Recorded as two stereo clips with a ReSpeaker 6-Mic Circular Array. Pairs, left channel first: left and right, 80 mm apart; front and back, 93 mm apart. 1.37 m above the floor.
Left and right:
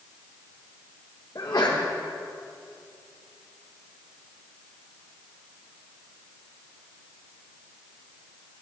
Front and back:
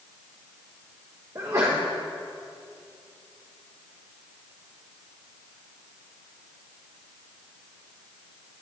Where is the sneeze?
125° left, 1.4 m.